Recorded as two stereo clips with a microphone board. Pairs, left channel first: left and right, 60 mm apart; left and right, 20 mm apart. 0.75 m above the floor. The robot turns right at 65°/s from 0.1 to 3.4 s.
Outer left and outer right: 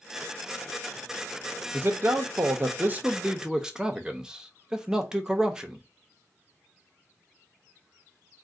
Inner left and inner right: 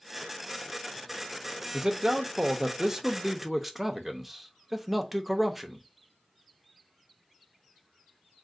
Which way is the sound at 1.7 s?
125° right.